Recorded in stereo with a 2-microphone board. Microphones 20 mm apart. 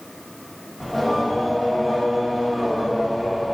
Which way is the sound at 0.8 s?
15° left (ahead or behind).